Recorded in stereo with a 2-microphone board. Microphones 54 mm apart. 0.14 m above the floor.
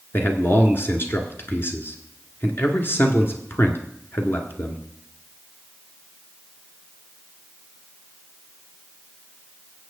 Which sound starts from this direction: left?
A man speaking, at 0.1 s.